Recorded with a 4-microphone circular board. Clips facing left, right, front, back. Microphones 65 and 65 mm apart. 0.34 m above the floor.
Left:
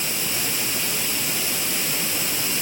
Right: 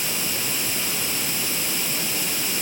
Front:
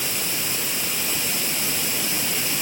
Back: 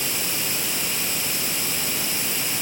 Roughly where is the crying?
I don't hear crying.